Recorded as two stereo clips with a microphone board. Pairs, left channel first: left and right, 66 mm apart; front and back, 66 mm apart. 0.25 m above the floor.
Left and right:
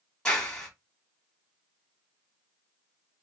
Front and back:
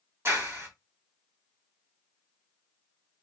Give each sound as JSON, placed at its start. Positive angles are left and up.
{"t": 0.2, "sound": "a clap", "azimuth_deg": 165, "distance_m": 1.7}